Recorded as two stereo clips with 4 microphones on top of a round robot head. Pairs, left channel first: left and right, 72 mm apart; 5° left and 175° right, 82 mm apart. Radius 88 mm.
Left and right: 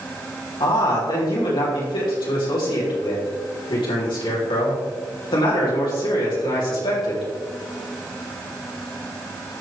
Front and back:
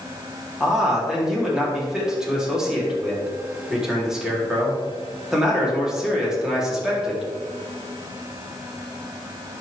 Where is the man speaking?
100° left, 4 m.